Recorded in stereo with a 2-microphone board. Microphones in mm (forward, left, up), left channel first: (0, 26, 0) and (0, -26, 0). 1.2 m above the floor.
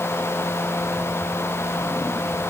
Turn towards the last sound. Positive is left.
No sound to turn to.